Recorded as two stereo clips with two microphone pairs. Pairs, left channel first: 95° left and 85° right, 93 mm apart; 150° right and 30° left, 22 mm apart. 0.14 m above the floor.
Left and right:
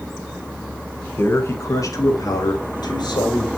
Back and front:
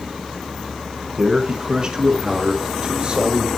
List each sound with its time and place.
1.2 s a man speaking: 65° left, 1.2 m; by 3.5 s 70° left, 2 m